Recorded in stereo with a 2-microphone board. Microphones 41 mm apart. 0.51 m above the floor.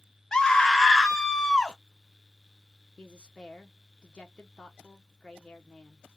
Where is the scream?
20° left (ahead or behind), 0.7 m.